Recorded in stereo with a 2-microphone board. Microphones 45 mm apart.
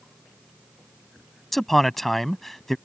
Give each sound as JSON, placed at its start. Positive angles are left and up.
{"t": 1.5, "sound": "a man speaking", "side_deg": 5}